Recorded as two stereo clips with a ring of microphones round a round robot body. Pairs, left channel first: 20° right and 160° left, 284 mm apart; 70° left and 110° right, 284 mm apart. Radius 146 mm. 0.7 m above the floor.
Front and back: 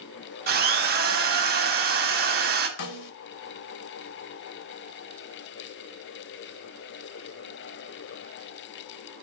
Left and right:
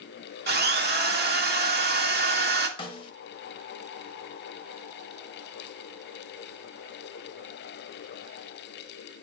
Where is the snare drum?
5° right, 0.8 m.